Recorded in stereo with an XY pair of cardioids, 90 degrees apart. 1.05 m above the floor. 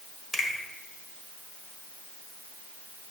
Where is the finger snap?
60° left, 1.4 m.